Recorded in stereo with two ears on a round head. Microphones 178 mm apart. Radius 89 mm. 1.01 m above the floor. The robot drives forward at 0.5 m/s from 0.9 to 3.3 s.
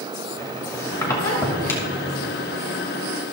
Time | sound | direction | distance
0.4 | a squeak | 15° left (ahead or behind) | 2.5 m